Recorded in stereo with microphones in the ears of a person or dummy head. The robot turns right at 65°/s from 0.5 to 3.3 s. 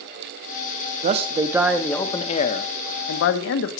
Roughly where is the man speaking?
Ahead right.